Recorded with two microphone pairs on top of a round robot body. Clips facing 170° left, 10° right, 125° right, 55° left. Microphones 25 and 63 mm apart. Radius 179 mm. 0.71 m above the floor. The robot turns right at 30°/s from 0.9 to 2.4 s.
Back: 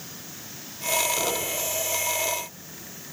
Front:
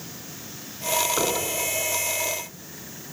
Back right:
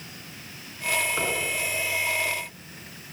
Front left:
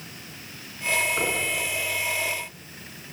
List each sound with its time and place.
1.2 s knocking: 40° right, 7.5 m; by 1.4 s 35° right, 7.5 m